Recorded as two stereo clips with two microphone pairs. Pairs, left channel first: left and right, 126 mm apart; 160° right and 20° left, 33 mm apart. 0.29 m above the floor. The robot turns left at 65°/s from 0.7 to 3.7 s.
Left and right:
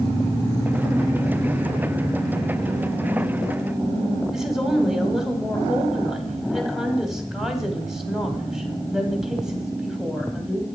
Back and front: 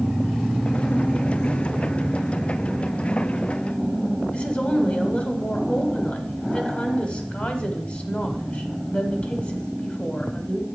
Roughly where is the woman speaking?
Behind.